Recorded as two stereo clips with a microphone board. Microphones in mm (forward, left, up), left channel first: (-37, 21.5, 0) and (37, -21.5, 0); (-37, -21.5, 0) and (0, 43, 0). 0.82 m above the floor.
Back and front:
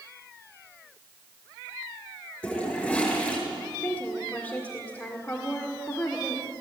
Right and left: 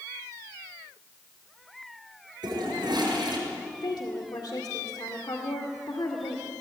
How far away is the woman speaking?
About 1.9 m.